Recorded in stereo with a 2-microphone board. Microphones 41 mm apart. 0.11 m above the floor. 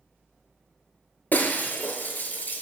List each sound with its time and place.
1.3 s breaking glass: 45° left (ahead or behind), 0.8 m